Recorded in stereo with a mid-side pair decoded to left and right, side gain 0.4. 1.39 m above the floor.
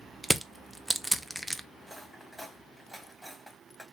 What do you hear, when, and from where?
0.2 s crushing: 5° right, 0.6 m
1.8 s cutlery clinking: straight ahead, 1.6 m